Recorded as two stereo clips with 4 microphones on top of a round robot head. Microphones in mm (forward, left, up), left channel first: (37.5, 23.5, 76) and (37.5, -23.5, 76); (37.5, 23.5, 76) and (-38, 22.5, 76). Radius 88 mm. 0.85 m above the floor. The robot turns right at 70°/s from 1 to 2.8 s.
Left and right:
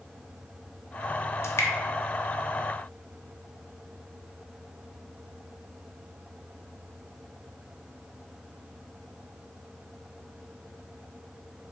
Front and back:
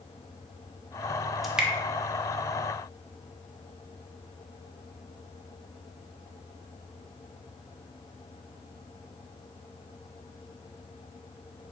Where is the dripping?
90° left, 0.7 m; by 1.7 s 110° left, 0.7 m.